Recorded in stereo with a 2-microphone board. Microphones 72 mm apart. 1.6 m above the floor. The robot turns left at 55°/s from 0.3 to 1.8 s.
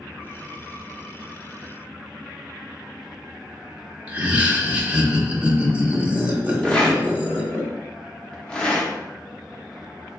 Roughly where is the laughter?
Right.